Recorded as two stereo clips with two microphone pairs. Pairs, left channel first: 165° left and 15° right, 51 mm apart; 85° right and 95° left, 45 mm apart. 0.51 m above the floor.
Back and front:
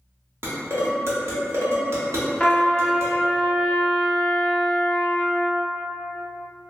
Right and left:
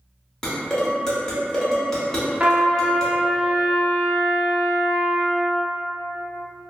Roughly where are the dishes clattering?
Ahead.